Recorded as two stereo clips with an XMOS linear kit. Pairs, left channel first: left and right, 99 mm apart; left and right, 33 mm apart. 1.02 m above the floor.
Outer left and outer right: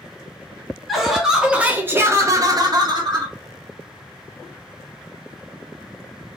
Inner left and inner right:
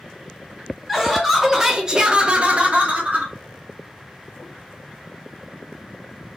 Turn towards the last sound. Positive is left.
turn(degrees=-45)  # may be behind; listen again after turning